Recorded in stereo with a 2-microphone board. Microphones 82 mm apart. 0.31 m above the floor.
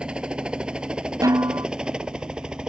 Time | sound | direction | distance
0.0 | a helicopter | 10° right (ahead or behind) | ?
1.2 | a snare drum | 45° right (ahead or behind) | ?